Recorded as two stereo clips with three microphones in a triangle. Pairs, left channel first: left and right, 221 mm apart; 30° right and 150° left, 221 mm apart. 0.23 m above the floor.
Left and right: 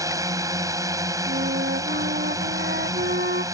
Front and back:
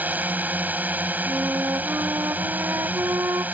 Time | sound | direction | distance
0.0 | a drone | 140° right | ?
1.3 | a flute | 135° right | ?